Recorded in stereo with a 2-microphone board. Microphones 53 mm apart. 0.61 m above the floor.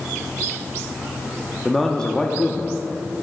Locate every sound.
1.6 s a man speaking: 5° left (ahead or behind), 0.8 m; by 2.8 s 25° left (ahead or behind), 0.7 m